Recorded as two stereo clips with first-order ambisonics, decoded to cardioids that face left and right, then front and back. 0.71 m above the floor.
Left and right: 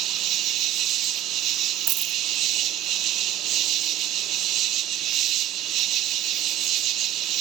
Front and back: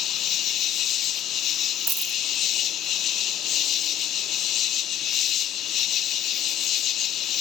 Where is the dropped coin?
115° right.